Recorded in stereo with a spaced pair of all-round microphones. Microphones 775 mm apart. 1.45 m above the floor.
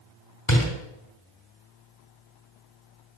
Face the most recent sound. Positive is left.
turn(degrees=30)  # may be behind; listen again after turning